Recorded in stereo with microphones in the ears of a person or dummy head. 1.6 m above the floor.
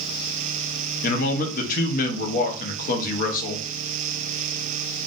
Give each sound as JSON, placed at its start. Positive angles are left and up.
{"t": 1.0, "sound": "a man speaking", "side_deg": 50, "distance_m": 0.6}